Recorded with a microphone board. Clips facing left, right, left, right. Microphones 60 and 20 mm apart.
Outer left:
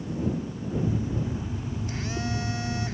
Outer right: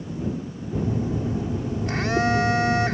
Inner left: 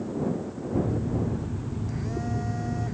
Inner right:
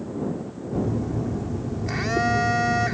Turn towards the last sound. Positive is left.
turn(degrees=-80)